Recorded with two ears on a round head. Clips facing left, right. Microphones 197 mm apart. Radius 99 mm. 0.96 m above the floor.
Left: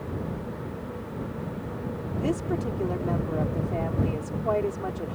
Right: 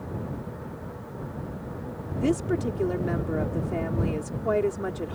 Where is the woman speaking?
25° right (ahead or behind).